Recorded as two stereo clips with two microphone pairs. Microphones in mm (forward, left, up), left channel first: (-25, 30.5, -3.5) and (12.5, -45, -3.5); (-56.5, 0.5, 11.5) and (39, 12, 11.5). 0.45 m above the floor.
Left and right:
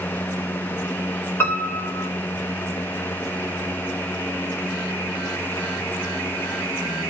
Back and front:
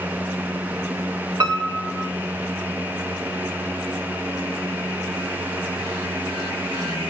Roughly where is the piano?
Ahead left.